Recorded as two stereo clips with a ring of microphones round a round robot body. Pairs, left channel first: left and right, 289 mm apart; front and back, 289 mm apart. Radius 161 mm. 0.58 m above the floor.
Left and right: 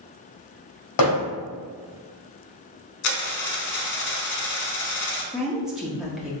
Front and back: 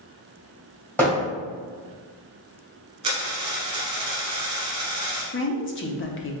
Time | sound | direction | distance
1.0 | hammering | 85° left | 2.0 m
3.0 | a dropped coin | 105° left | 1.0 m
5.3 | a woman speaking | 5° right | 0.7 m